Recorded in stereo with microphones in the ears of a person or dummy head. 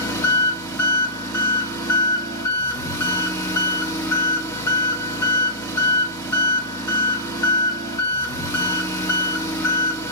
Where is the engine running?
15° left (ahead or behind), 2 m.